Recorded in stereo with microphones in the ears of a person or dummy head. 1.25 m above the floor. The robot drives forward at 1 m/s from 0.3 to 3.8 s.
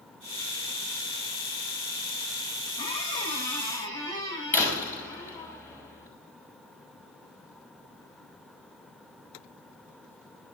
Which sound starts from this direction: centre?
A door slam, at 4.5 s.